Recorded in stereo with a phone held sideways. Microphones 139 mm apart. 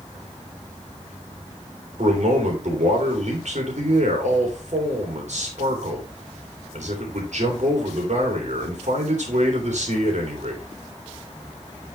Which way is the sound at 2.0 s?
60° right (ahead or behind).